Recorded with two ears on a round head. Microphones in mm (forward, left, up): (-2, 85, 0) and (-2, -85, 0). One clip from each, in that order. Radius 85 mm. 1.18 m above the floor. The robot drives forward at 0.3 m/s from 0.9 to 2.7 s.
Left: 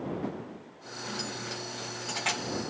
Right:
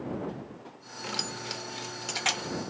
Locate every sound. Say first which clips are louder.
1.0 s keys jangling: right 3 dB; 50° right (ahead or behind), 0.5 m; by 2.7 s 25° right (ahead or behind), 0.9 m